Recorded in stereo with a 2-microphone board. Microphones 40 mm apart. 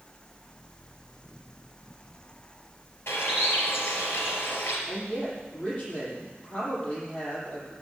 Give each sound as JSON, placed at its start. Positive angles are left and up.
{"t": 3.1, "sound": "a bird", "side_deg": 75, "distance_m": 3.5}
{"t": 4.9, "sound": "a woman speaking", "side_deg": 40, "distance_m": 6.5}